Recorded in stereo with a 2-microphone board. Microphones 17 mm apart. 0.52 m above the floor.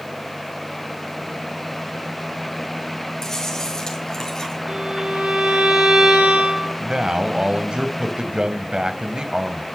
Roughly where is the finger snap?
No finger snap in this recording.